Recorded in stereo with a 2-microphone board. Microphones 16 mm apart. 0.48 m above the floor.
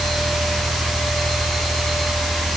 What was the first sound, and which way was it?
Only background noise.